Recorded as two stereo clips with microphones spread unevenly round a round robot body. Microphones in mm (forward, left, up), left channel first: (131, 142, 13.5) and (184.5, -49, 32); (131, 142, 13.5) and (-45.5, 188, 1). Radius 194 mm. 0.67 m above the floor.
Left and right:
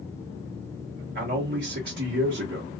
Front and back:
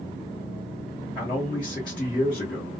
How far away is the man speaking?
About 1.0 m.